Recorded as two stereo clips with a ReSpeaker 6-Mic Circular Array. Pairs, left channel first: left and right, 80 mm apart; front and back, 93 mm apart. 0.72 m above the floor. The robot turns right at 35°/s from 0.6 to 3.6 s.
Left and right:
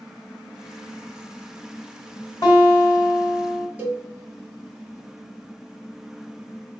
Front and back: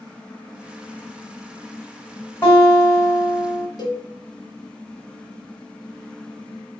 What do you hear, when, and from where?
2.4 s a guitar: 55° left, 1.3 m; by 3.7 s 100° left, 1.3 m
3.8 s a cowbell: 25° right, 0.7 m